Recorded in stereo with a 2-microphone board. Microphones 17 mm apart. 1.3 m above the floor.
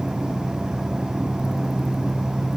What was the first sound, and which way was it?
Only background noise.